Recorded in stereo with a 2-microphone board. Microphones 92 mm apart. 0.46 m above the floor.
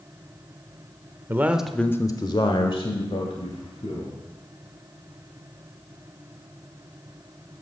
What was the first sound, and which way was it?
A man speaking, 25° right (ahead or behind).